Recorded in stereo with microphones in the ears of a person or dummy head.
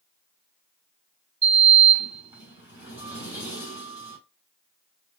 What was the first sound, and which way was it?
A sliding door, 10° right (ahead or behind).